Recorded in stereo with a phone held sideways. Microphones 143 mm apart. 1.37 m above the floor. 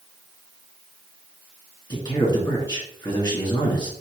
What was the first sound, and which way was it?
A man speaking, 30° left (ahead or behind).